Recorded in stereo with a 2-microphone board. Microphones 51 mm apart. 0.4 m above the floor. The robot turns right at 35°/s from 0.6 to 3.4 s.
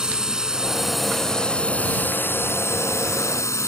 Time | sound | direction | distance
0.0 | a drone | 15° right | ?